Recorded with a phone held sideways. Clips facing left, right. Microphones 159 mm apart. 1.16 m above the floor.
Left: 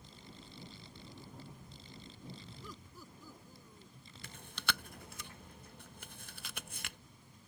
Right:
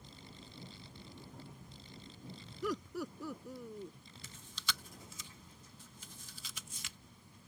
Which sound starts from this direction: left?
Chewing, at 4.2 s.